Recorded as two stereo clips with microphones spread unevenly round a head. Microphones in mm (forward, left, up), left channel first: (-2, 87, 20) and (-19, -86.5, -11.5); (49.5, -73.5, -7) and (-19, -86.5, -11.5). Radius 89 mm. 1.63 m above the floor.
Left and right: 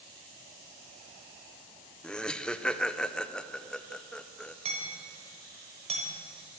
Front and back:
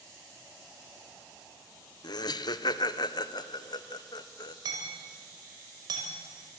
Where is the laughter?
5° left, 0.7 m.